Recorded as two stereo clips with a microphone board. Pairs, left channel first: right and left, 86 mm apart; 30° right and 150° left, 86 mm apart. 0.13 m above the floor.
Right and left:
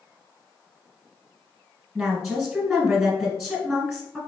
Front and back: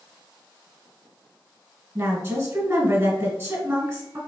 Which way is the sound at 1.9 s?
170° left.